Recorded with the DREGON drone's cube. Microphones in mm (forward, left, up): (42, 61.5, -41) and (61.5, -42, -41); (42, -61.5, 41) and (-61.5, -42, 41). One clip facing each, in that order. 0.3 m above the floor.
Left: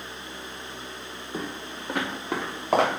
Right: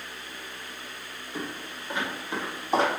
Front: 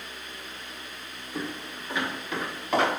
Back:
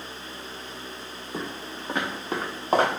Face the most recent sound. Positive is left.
turn(degrees=120)